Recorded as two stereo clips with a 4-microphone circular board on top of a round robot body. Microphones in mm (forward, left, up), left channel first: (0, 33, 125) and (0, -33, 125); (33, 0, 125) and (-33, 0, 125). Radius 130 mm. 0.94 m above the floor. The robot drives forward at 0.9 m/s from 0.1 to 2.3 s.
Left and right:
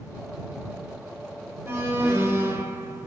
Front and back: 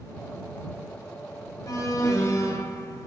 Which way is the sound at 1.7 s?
30° right.